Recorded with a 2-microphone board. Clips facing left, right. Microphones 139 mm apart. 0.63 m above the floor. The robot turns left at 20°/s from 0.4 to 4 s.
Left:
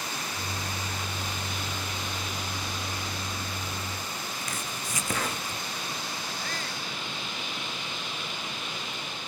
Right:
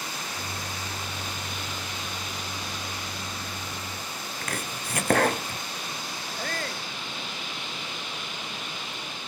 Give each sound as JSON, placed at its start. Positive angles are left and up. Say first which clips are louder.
{"t": 4.4, "sound": "chopping", "louder": "right 2 dB", "side_deg": -60}
{"t": 6.4, "sound": "a shout", "louder": "right 3 dB", "side_deg": -50}